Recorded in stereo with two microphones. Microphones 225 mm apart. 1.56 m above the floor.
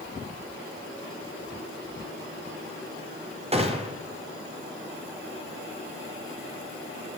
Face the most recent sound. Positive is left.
turn(degrees=-25)  # may be behind; listen again after turning